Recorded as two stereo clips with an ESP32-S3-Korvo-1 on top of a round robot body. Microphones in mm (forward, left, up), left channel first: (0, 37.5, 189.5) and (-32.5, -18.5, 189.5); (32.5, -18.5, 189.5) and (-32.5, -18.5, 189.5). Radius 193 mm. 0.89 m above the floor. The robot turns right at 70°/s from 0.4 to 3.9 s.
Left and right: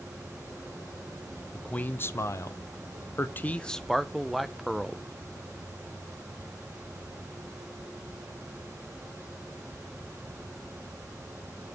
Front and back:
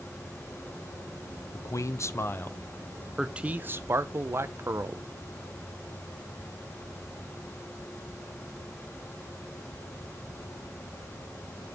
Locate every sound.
1.5 s a man speaking: 15° right, 0.8 m; by 5.1 s 150° left, 0.8 m